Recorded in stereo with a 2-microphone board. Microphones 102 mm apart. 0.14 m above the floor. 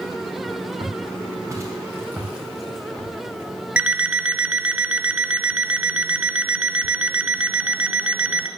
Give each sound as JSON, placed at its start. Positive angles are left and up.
{"t": 0.8, "sound": "footsteps", "side_deg": -40, "distance_m": 3.5}
{"t": 3.8, "sound": "an alarm clock", "side_deg": -10, "distance_m": 0.6}